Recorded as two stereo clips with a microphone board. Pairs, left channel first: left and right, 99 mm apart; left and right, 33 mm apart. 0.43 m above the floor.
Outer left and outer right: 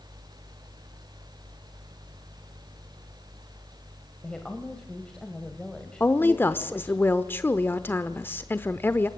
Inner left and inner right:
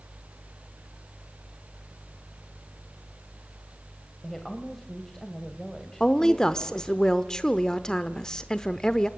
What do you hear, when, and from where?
4.2 s a woman speaking: 10° left (ahead or behind), 1.9 m
6.0 s a woman speaking: 20° left (ahead or behind), 0.8 m